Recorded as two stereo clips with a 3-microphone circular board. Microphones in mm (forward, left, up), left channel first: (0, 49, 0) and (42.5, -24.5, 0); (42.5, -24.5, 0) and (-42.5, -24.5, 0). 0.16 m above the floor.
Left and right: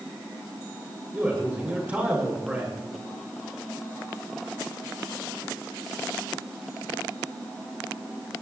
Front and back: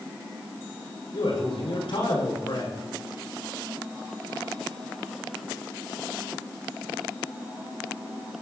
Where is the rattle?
No rattle in this recording.